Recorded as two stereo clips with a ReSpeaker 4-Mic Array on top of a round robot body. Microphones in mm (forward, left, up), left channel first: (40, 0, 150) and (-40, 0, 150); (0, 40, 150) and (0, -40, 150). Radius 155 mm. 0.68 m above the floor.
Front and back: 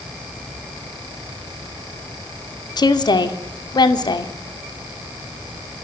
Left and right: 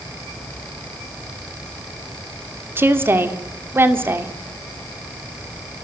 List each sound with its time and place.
2.8 s a woman speaking: 30° right, 2 m